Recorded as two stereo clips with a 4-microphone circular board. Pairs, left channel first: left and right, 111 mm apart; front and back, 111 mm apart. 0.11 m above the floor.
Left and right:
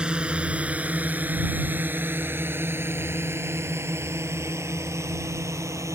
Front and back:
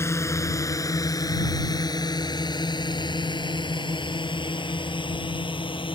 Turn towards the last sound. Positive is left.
turn(degrees=-30)